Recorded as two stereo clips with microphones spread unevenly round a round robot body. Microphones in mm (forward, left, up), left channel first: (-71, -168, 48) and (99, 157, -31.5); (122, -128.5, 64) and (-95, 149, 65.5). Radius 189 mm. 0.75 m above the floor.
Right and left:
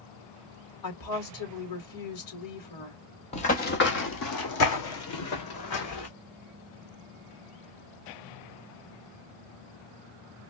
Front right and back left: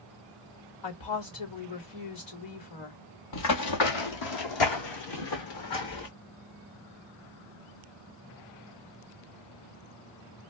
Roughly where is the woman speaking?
Right.